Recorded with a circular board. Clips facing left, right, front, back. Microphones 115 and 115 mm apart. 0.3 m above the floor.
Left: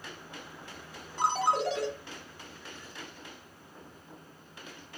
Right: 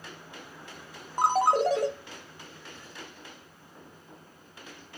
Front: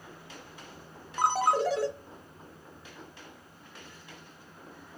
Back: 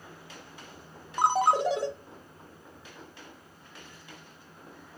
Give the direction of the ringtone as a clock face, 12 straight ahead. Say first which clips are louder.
Right 5 dB, back 2 dB; 4 o'clock.